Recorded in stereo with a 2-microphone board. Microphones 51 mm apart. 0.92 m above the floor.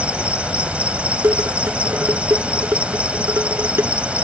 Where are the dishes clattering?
55° right (ahead or behind).